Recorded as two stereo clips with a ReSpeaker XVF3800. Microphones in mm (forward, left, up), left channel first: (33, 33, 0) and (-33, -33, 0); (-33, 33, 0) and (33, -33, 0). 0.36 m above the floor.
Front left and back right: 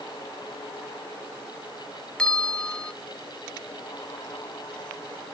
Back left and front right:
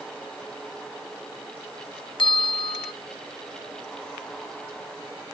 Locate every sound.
2.2 s a bell: 125° left, 0.5 m